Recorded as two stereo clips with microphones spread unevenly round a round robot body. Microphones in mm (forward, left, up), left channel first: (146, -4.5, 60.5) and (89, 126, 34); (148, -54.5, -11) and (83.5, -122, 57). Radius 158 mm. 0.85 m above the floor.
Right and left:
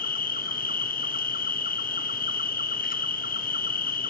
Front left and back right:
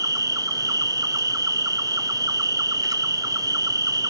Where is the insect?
55° right, 0.8 m.